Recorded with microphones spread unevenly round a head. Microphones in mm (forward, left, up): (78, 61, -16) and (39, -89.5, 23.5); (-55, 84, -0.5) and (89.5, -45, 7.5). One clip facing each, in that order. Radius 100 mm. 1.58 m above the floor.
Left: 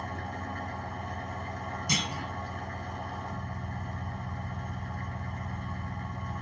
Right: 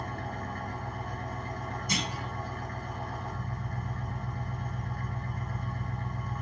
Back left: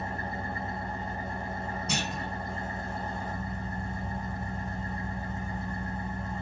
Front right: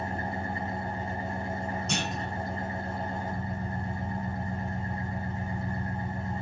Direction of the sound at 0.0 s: 5° left.